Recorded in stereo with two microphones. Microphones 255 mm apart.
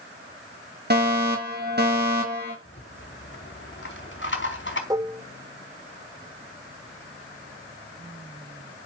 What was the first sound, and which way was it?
A fire alarm, 45° right (ahead or behind).